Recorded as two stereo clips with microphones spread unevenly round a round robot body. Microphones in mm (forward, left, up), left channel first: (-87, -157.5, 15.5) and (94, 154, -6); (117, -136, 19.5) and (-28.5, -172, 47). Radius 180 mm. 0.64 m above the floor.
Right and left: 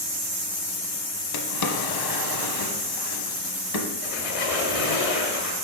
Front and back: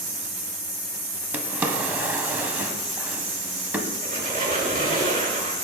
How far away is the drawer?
About 1.3 m.